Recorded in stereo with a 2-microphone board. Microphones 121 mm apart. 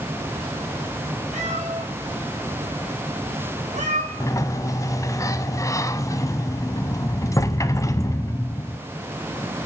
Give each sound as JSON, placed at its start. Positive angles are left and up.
{"t": 1.3, "sound": "a cat meowing", "side_deg": -75, "distance_m": 3.0}
{"t": 4.2, "sound": "a sliding door", "side_deg": 25, "distance_m": 0.7}